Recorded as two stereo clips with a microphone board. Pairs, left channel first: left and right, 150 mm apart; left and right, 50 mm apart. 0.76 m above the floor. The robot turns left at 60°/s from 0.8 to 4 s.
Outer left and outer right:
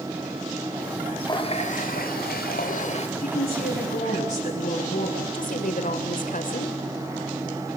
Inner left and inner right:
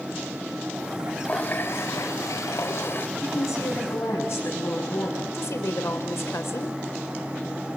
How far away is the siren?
No siren in this recording.